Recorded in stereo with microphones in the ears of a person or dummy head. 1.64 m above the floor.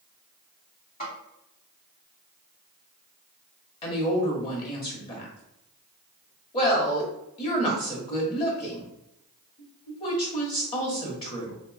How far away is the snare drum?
About 1.7 m.